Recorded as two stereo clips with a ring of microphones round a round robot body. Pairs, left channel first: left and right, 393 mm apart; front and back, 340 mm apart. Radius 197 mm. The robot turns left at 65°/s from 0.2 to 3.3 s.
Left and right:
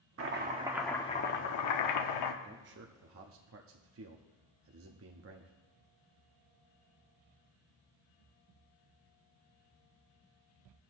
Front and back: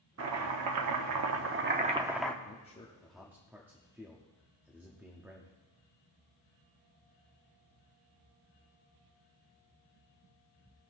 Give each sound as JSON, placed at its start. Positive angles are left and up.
{"t": 0.2, "sound": "chopping", "azimuth_deg": -140, "distance_m": 0.9}
{"t": 2.4, "sound": "a man speaking", "azimuth_deg": -45, "distance_m": 0.7}